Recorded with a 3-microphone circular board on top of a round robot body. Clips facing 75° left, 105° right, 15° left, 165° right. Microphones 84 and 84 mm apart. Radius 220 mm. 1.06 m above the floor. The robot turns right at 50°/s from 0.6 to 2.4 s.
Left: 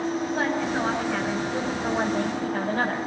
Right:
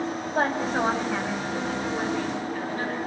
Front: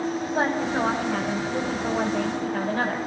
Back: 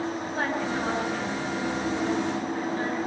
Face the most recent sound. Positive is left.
turn(degrees=45)